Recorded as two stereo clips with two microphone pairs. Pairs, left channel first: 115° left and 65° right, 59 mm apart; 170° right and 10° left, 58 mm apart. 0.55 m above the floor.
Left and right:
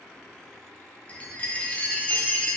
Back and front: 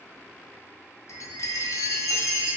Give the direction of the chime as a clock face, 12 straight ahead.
6 o'clock.